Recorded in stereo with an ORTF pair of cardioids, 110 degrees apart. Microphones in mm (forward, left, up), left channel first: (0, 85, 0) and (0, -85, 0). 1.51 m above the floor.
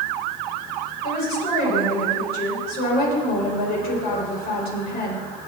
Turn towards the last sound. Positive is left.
turn(degrees=65)